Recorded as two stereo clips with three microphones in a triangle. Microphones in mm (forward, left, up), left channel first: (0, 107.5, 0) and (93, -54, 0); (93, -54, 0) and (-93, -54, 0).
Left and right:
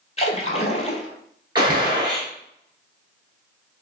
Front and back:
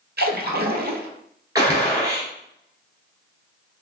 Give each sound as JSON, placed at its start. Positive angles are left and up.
{"t": 0.2, "sound": "a splash", "azimuth_deg": 170, "distance_m": 1.0}
{"t": 1.6, "sound": "a gunshot", "azimuth_deg": -115, "distance_m": 1.7}